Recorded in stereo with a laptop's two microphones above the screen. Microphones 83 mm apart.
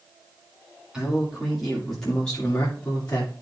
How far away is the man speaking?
About 1.9 m.